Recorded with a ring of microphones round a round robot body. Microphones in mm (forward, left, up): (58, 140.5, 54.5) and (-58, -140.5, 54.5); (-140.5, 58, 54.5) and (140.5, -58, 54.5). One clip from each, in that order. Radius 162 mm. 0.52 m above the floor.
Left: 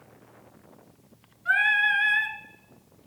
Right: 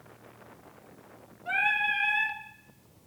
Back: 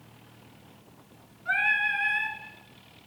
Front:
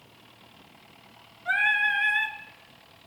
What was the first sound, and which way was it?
Singing, 60° left.